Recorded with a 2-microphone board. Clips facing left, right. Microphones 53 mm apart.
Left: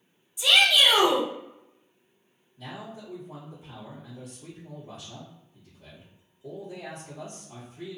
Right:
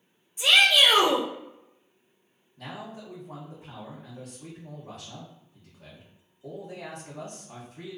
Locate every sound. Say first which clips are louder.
0.4 s a shout: right 1 dB; 40° right (ahead or behind), 0.9 m
2.6 s a man speaking: right 1 dB; 80° right, 0.9 m